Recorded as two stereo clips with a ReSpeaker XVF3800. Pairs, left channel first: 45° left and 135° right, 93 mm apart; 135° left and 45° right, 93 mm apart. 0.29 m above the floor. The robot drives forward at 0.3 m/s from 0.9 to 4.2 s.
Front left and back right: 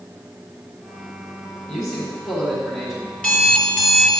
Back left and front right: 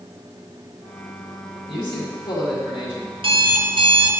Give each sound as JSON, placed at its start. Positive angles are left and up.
{"t": 1.7, "sound": "a man speaking", "azimuth_deg": 105, "distance_m": 2.0}
{"t": 3.1, "sound": "an alarm clock", "azimuth_deg": -30, "distance_m": 1.5}